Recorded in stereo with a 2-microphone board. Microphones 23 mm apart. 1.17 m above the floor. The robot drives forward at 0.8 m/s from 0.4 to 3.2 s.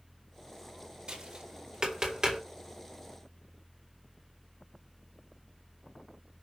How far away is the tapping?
About 2.5 m.